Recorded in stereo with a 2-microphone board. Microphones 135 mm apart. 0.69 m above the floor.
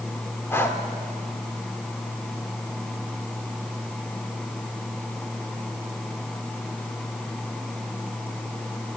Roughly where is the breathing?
Centre.